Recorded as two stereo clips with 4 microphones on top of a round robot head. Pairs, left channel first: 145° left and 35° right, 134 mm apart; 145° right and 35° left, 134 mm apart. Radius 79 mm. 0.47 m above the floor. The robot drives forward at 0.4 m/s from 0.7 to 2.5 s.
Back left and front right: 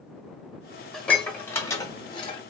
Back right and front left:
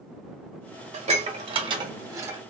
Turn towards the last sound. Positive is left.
turn(degrees=105)